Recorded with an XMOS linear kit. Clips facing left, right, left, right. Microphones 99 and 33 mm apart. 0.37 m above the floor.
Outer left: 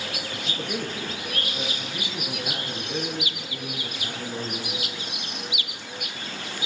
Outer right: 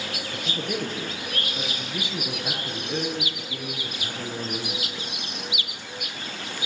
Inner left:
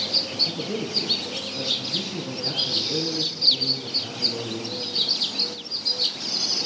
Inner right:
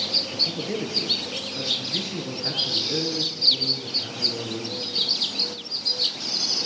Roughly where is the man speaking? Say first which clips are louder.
Outer right 2 dB, even; right.